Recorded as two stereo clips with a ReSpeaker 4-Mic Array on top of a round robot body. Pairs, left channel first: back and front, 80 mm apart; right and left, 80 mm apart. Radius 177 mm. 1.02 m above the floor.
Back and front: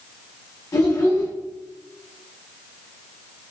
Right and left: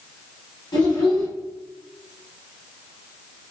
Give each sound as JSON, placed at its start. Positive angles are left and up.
{"t": 0.7, "sound": "a child speaking", "azimuth_deg": -125, "distance_m": 1.8}